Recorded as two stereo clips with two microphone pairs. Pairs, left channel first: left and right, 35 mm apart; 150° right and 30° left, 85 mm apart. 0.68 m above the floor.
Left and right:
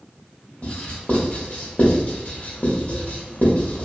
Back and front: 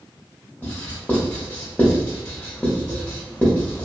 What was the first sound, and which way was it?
Writing, 140° left.